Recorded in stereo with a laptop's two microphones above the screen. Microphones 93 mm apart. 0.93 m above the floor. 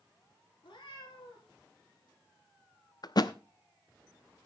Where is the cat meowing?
70° left (ahead or behind), 3.5 m.